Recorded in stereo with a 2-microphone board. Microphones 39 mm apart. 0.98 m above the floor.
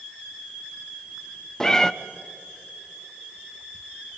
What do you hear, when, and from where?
1.6 s a cat meowing: 15° left (ahead or behind), 0.5 m